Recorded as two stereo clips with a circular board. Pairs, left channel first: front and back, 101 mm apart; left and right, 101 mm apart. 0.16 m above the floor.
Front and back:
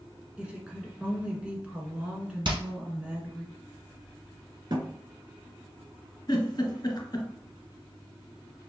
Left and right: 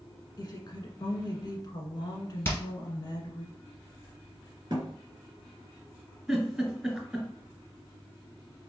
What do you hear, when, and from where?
0.4 s a woman speaking: 105° left, 1.4 m
2.5 s hammering: 155° left, 1.9 m
4.7 s a thud: 140° right, 2 m
6.3 s a giggle: straight ahead, 1.9 m